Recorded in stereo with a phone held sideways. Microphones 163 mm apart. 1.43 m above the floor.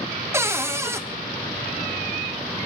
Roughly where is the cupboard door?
Centre.